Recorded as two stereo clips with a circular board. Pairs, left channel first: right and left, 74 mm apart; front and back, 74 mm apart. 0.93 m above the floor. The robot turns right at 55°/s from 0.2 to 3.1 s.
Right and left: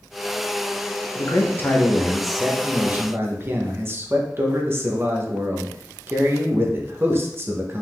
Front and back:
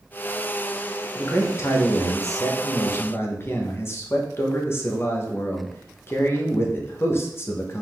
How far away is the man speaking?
About 0.8 m.